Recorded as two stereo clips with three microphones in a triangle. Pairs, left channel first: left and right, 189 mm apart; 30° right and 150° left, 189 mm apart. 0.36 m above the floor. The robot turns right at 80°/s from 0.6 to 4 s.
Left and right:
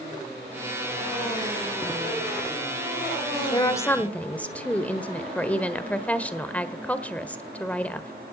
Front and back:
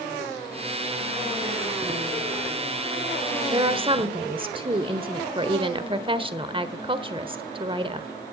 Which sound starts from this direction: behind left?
A woman speaking, at 3.5 s.